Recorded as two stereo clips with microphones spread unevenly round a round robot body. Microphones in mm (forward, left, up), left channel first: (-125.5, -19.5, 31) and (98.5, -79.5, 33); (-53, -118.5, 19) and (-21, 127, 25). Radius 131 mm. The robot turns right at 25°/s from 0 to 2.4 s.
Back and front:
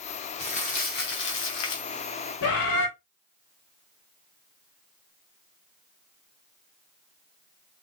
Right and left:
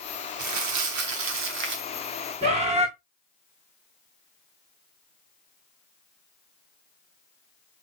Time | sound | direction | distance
0.4 | crumpling | 95° left | 1.0 m
2.4 | a bird | 145° left | 1.7 m